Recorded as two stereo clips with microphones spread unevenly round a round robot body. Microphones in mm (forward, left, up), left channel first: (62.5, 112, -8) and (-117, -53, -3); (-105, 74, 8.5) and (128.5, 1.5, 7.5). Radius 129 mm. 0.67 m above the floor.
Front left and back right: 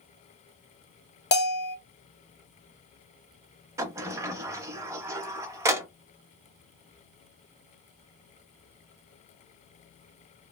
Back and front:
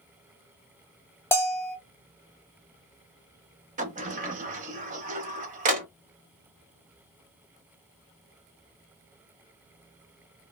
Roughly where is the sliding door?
Ahead right.